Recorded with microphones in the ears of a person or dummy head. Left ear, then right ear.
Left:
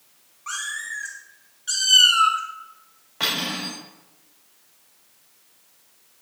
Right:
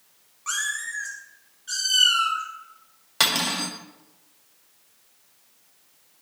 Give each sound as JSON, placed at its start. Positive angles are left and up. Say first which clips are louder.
{"t": 0.5, "sound": "a cat meowing", "louder": "right 2 dB", "side_deg": -25, "distance_m": 2.0}
{"t": 3.2, "sound": "cutlery clinking", "louder": "right 2 dB", "side_deg": -60, "distance_m": 1.9}